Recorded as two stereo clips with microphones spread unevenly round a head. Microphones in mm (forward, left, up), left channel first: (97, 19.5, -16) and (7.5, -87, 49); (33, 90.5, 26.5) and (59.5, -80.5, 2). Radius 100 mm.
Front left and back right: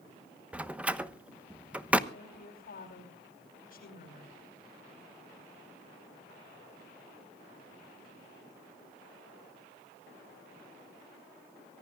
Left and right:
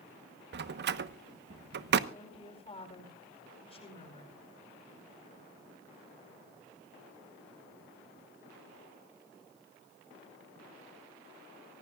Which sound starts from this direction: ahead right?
A door slam, at 0.5 s.